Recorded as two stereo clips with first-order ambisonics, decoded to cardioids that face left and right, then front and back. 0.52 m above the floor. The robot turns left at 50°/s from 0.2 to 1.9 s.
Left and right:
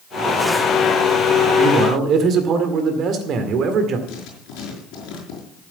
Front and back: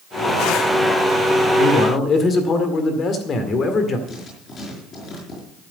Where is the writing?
65° left, 5.5 m.